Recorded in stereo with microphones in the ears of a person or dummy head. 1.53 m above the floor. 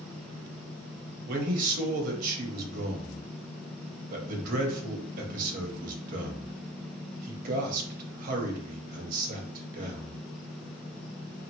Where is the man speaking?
55° right (ahead or behind), 0.9 m.